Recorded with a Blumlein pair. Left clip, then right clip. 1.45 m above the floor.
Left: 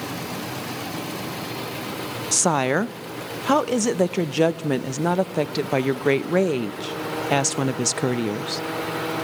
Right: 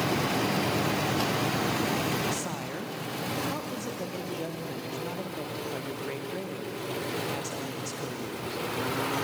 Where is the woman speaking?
50° left, 0.6 m.